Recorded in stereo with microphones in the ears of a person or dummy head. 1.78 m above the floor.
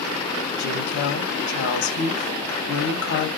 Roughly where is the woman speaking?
Left.